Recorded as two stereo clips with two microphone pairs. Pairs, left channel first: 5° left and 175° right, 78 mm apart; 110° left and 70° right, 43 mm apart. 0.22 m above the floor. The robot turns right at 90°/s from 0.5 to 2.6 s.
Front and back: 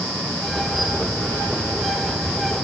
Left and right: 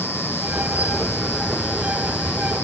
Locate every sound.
Only background noise.